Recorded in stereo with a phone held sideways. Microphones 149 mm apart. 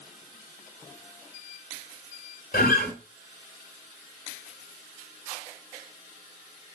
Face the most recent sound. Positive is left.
turn(degrees=70)  # may be behind; listen again after turning